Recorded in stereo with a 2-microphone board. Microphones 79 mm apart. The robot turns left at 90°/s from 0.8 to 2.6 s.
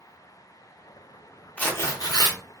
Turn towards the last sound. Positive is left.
turn(degrees=70)